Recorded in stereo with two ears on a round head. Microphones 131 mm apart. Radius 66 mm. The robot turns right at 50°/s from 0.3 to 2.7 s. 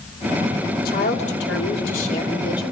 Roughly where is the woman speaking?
Ahead left.